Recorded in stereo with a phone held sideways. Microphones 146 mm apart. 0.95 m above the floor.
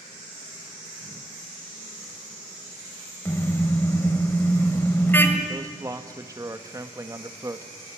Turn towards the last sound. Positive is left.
turn(degrees=-25)  # may be behind; listen again after turning